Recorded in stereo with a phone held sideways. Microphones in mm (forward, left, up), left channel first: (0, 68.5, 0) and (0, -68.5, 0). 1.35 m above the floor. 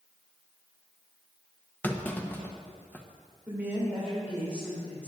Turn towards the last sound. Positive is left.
turn(degrees=-15)  # may be behind; listen again after turning